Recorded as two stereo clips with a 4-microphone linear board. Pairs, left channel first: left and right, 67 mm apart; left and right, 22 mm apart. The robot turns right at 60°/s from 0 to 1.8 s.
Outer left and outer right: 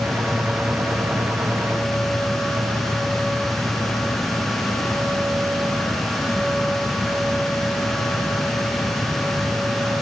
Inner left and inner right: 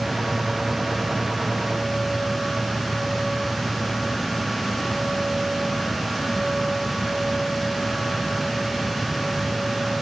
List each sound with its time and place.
Only background noise.